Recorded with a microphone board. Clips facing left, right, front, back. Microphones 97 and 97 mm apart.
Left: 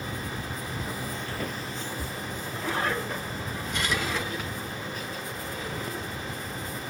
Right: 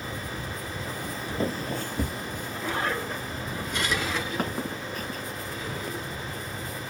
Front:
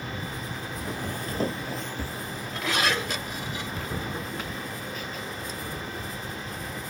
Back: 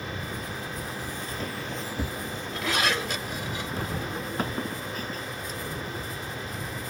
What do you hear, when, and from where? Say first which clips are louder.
0.8 s footsteps: even, front 2 dB; 15° left; by 5.2 s 130° right